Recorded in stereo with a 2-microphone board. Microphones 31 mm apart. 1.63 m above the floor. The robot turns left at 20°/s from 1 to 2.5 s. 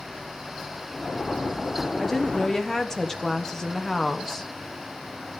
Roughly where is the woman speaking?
Centre.